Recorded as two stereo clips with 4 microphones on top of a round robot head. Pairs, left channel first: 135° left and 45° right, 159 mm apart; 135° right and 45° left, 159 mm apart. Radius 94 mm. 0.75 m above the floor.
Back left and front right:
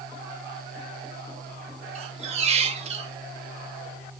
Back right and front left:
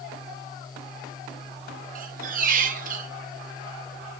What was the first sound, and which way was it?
A squeak, 5° left.